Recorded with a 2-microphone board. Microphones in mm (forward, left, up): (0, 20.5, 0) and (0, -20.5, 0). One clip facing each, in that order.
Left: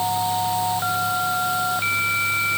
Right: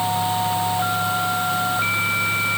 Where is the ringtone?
No ringtone in this recording.